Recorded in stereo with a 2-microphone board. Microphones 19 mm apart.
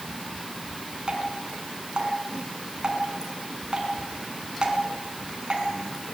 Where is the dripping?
40° right (ahead or behind), 4.5 m.